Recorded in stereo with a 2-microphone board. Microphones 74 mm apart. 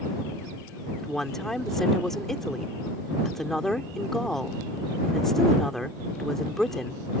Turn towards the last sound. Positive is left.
turn(degrees=5)  # may be behind; listen again after turning